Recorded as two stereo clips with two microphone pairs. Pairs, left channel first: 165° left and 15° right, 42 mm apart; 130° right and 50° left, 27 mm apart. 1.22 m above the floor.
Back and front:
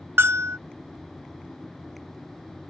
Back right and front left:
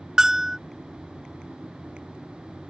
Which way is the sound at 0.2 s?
10° right.